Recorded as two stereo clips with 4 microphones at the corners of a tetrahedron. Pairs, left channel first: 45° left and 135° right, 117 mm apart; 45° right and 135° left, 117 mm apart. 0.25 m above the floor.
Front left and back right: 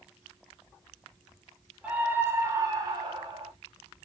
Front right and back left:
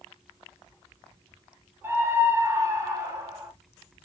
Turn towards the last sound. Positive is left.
turn(degrees=-170)